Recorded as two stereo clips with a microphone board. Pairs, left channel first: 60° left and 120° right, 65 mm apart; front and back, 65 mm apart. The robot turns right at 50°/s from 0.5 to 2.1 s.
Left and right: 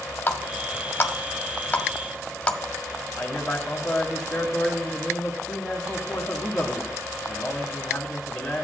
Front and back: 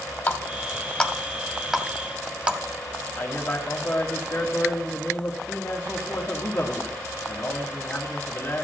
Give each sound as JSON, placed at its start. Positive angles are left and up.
{"t": 0.3, "sound": "a running tap", "azimuth_deg": 40, "distance_m": 0.7}
{"t": 3.2, "sound": "a man speaking", "azimuth_deg": -15, "distance_m": 1.3}